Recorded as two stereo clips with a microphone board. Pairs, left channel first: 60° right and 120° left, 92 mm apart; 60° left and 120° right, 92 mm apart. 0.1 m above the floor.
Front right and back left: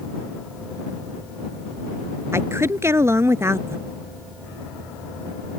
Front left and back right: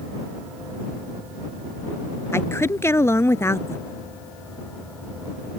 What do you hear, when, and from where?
2.3 s a woman speaking: 90° left